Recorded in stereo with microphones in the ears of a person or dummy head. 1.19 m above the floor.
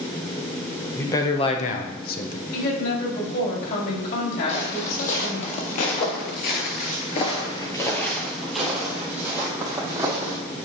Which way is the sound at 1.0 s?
15° left (ahead or behind).